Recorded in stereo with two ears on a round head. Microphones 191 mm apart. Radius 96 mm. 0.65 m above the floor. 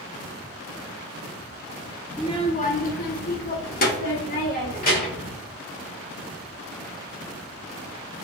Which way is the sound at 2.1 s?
15° left (ahead or behind).